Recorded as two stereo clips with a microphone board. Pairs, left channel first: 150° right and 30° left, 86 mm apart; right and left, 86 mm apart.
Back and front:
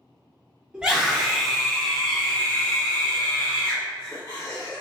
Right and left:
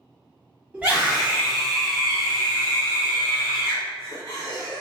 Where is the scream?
75° left, 1.4 m; by 4.8 s 135° right, 2 m.